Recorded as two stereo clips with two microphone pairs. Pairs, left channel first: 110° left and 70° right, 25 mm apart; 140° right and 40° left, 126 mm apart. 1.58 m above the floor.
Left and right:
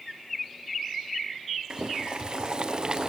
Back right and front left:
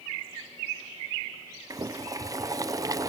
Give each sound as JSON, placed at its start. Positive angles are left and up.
{"t": 1.7, "sound": "boiling", "azimuth_deg": -20, "distance_m": 0.8}